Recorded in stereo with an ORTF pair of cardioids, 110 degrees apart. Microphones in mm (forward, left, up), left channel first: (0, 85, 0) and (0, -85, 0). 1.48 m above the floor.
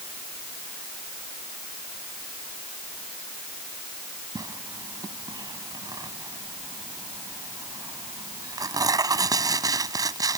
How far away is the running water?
No running water in this recording.